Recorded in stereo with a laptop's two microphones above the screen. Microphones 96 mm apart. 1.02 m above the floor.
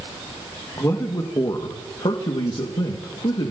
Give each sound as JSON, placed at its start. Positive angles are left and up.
{"t": 0.8, "sound": "a man speaking", "side_deg": 35, "distance_m": 1.5}